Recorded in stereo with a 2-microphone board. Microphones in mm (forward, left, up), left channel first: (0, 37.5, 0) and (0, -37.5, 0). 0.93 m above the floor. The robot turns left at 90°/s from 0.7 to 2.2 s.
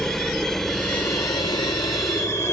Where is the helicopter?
5° left (ahead or behind); by 2.5 s 35° left (ahead or behind).